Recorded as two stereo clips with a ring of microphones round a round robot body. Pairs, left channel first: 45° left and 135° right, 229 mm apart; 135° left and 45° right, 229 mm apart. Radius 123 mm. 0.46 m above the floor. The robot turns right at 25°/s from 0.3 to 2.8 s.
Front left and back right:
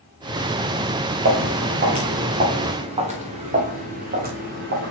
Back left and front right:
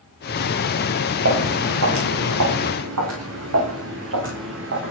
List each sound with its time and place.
1.2 s footsteps: 90° right, 2.5 m